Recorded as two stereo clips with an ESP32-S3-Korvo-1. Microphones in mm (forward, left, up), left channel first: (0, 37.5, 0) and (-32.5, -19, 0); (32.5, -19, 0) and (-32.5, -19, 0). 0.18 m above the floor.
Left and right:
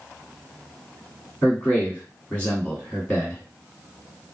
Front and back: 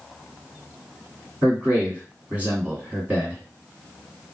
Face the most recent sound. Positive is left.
turn(degrees=125)